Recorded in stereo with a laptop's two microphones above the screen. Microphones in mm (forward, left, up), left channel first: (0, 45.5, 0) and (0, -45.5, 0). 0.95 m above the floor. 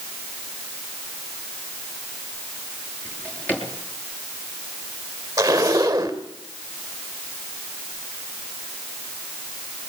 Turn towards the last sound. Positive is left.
turn(degrees=-35)  # may be behind; listen again after turning